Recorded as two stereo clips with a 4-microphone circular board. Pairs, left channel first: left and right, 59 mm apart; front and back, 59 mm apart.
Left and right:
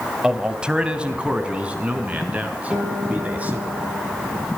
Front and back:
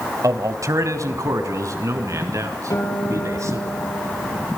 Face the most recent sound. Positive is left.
turn(degrees=-20)